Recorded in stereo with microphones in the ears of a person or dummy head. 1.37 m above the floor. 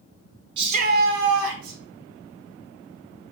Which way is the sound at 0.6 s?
25° right (ahead or behind).